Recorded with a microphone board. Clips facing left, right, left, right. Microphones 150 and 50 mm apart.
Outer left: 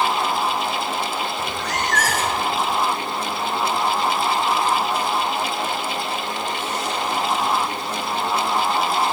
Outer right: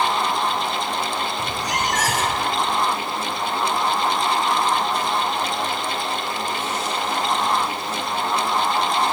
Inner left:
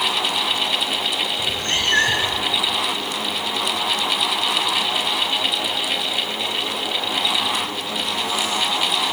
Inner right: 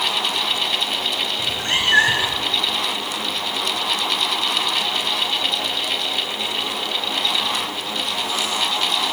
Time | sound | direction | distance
1.4 | a cat meowing | 15° right (ahead or behind) | 4 m